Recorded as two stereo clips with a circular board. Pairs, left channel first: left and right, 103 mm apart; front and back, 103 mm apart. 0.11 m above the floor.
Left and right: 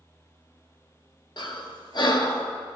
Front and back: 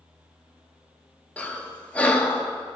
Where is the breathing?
75° left, 0.9 m.